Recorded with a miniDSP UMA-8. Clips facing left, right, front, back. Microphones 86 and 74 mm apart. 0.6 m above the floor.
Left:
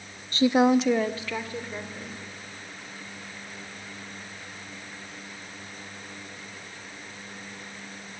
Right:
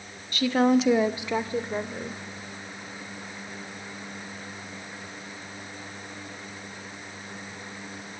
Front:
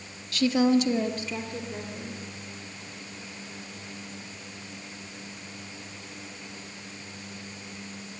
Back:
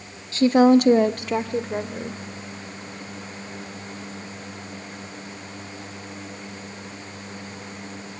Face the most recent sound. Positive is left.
turn(degrees=-145)